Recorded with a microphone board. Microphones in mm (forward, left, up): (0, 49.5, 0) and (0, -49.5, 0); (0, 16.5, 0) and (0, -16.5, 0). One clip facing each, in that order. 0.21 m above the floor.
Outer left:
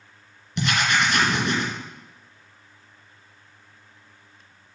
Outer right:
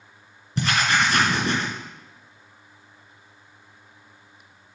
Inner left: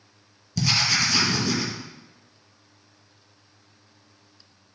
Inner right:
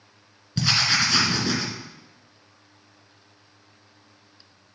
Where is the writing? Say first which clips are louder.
Outer right 1 dB, inner right 1 dB; 40° right (ahead or behind), 2 m.